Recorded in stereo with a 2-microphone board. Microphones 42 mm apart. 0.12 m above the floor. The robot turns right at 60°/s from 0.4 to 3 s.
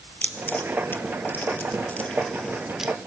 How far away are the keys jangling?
About 1.7 m.